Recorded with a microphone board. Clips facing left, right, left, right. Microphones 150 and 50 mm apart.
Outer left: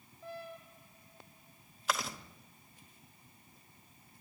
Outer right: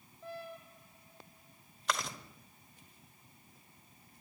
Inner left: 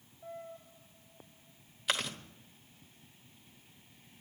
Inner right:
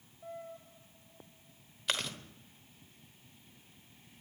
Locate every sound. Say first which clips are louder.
1.9 s chewing: outer left 1 dB, inner left 2 dB; 5° left (ahead or behind), 1.1 m